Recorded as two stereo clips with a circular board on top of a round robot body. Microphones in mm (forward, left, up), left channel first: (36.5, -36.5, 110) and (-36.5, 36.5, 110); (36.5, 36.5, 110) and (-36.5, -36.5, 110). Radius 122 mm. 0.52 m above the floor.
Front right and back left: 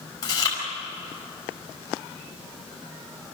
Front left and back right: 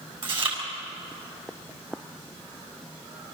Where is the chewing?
100° right, 6 m.